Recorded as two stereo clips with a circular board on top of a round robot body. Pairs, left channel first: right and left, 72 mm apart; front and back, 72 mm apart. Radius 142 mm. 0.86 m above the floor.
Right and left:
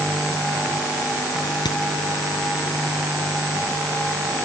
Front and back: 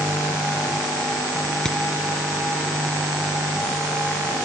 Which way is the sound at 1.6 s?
80° right.